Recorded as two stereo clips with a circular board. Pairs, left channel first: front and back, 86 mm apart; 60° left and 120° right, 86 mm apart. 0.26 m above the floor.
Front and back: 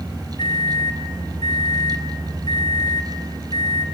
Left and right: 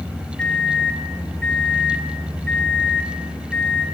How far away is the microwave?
About 2.5 m.